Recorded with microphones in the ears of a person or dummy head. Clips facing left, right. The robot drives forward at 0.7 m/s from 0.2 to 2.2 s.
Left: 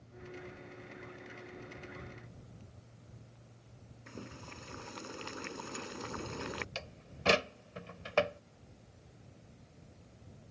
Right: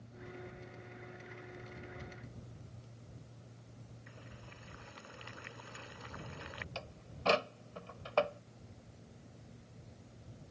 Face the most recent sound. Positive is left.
turn(degrees=20)  # may be behind; listen again after turning